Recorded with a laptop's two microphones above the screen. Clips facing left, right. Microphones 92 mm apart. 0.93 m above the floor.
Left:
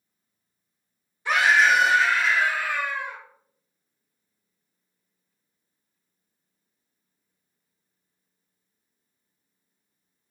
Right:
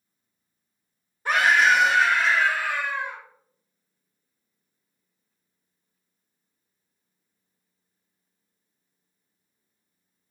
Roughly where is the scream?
Right.